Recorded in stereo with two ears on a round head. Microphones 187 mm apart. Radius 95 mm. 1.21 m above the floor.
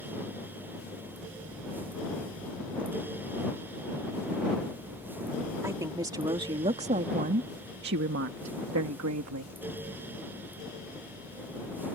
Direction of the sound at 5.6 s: 15° right (ahead or behind).